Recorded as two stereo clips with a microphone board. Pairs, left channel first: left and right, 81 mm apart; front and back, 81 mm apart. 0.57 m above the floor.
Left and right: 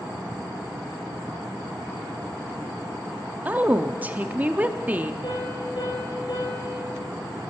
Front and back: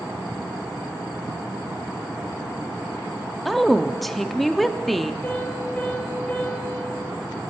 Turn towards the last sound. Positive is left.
turn(degrees=75)